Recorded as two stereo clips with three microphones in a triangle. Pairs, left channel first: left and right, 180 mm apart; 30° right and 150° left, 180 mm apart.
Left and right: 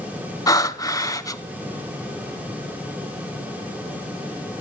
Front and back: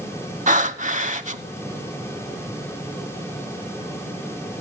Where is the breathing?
150° left, 0.7 m.